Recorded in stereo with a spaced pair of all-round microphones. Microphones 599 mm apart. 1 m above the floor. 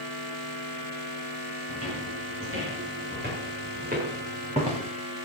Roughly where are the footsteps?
Right.